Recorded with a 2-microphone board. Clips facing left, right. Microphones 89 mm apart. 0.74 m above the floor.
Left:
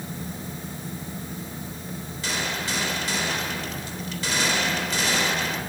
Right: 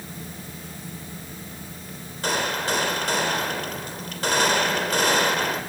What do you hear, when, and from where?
2.2 s a gunshot: 55° right (ahead or behind), 3 m